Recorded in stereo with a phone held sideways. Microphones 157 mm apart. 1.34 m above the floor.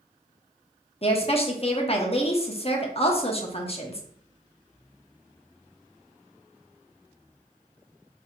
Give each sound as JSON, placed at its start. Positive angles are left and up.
{"t": 1.0, "sound": "a woman speaking", "side_deg": 40, "distance_m": 0.7}